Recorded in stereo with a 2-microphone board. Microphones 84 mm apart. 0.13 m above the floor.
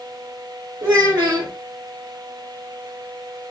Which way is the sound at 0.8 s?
30° right (ahead or behind).